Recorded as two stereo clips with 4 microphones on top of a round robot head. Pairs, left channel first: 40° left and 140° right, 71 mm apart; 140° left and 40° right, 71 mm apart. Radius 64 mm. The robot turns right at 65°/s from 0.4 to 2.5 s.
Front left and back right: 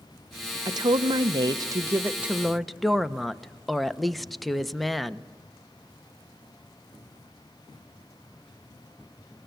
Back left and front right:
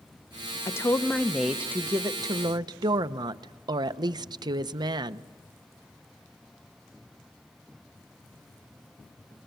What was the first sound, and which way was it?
A woman speaking, 170° right.